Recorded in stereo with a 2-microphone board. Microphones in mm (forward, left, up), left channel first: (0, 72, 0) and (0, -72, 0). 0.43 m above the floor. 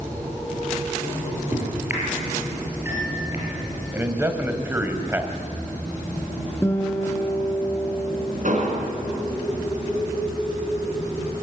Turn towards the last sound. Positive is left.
turn(degrees=-60)  # may be behind; listen again after turning